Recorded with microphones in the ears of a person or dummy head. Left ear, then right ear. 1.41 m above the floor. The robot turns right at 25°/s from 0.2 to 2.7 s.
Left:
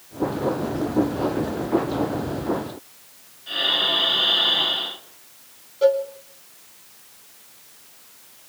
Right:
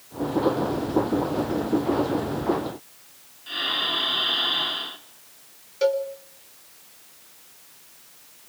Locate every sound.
3.5 s breathing: 10° right (ahead or behind), 3.5 m
5.8 s a cowbell: 70° right (ahead or behind), 4 m